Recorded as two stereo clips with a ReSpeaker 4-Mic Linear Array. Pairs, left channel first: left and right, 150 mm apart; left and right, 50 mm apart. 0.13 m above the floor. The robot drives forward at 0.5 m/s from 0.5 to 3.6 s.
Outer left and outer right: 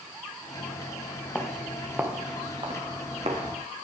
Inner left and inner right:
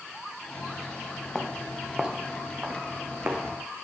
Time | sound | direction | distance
1.4 | footsteps | 10° left (ahead or behind) | 1.5 m